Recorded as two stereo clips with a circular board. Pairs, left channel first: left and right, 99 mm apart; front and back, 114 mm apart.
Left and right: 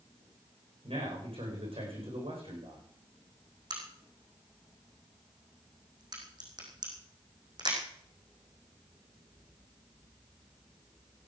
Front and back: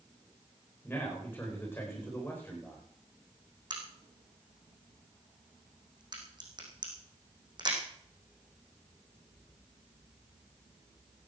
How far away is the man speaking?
About 8.5 m.